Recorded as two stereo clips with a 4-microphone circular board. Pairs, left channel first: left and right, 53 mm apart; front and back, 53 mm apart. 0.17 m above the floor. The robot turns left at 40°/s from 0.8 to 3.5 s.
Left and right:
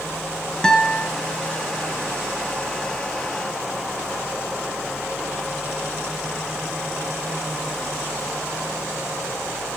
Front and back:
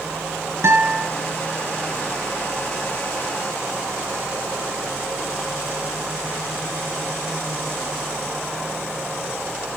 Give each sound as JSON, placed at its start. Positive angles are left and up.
{"t": 0.6, "sound": "a guitar", "azimuth_deg": 165, "distance_m": 3.0}